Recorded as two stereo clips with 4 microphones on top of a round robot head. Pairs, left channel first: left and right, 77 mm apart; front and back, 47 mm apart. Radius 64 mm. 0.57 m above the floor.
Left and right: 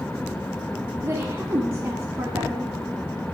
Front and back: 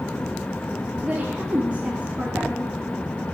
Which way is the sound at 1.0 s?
135° right.